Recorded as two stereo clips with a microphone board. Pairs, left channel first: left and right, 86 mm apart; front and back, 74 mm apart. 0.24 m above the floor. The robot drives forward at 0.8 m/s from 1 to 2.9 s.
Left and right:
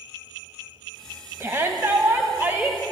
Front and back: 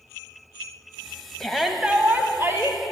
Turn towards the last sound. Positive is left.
turn(degrees=-150)